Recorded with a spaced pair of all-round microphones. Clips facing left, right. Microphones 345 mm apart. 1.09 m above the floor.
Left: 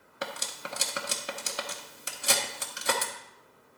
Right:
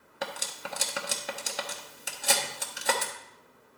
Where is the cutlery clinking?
5° left (ahead or behind), 0.8 m.